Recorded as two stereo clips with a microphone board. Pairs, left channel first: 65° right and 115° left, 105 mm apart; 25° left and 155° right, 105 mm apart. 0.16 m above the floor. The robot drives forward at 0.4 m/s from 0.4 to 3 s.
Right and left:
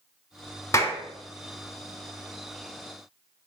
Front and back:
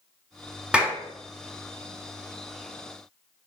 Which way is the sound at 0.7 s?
85° right.